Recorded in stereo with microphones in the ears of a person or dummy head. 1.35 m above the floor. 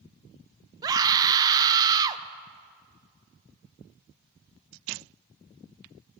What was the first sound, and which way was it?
A scream, 25° right (ahead or behind).